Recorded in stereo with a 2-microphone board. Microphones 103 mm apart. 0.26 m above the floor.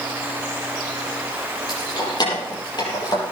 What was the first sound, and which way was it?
Keys jangling, 45° left (ahead or behind).